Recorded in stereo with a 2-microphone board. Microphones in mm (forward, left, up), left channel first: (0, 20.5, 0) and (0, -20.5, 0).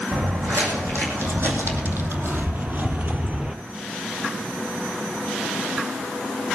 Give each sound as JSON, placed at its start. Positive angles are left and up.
{"t": 0.1, "sound": "footsteps", "side_deg": -75, "distance_m": 4.0}